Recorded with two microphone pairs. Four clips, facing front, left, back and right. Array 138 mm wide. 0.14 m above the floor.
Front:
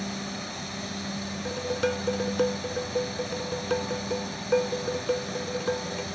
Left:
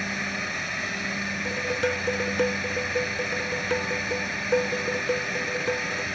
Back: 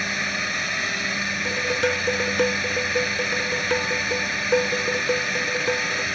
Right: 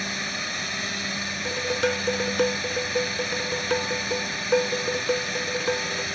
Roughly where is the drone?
Behind.